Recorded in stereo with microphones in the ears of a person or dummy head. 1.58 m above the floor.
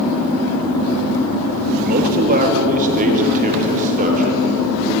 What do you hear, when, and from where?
1.9 s a man speaking: 45° right (ahead or behind), 3 m; by 5.0 s 40° right (ahead or behind), 7 m